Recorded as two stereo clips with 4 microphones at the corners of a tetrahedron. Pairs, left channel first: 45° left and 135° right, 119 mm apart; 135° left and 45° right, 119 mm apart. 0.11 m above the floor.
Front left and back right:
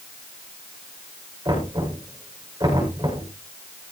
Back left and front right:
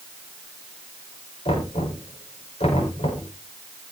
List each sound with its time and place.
1.4 s knocking: 165° left, 8 m